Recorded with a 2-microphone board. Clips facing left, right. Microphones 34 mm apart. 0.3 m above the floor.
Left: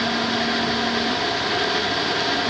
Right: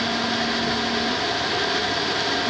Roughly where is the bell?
No bell in this recording.